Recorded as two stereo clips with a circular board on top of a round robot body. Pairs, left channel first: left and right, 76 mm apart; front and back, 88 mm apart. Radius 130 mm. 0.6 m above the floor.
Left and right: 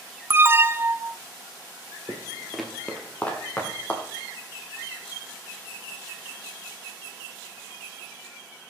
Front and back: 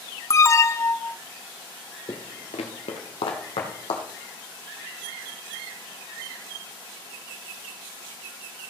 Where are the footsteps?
35° right, 0.7 m; by 4.0 s 20° left, 2 m.